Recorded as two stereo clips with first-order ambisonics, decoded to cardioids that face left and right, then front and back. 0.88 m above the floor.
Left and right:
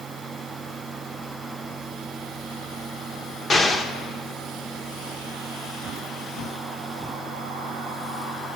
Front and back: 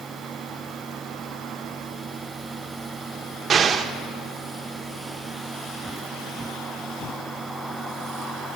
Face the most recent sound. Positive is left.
turn(degrees=140)